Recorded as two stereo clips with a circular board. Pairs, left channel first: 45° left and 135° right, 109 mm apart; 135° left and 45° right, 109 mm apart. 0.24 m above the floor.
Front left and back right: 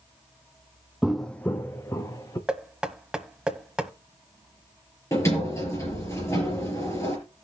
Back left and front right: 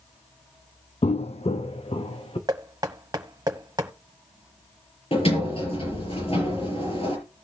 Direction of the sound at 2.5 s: 60° right.